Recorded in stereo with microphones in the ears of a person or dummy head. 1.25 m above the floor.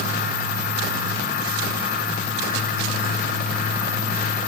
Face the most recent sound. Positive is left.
No sound to turn to.